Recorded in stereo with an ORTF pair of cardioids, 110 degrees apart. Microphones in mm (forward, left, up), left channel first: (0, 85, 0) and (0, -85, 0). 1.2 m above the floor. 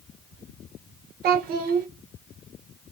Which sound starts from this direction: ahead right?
A child speaking, at 1.2 s.